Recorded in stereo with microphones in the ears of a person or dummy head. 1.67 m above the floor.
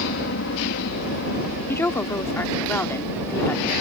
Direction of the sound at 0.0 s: 65° left (ahead or behind).